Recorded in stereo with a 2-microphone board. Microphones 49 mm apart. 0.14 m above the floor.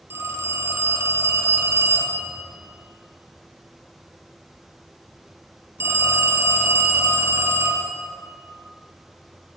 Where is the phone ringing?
55° right (ahead or behind), 1.7 m.